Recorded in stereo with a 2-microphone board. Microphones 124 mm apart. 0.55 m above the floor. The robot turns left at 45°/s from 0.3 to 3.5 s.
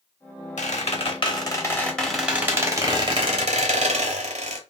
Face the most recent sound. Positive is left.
turn(degrees=-60)